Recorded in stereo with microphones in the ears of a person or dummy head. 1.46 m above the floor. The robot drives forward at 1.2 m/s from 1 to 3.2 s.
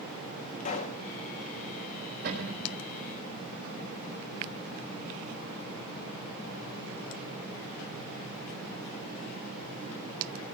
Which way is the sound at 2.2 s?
60° right (ahead or behind).